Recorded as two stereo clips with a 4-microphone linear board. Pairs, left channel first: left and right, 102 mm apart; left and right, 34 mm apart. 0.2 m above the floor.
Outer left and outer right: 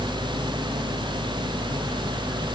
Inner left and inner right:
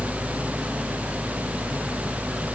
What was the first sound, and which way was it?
Only background noise.